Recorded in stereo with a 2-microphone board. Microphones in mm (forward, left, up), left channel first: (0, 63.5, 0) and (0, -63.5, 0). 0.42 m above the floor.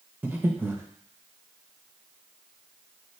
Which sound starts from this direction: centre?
Breathing, at 0.2 s.